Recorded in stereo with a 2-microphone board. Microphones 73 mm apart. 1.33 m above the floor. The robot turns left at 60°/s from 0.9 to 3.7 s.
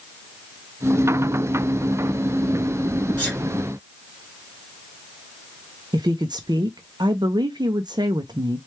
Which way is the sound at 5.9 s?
75° right (ahead or behind).